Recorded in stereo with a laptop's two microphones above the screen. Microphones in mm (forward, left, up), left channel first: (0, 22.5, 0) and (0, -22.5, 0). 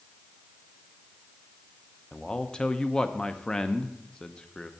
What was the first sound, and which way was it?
A man speaking, 15° left (ahead or behind).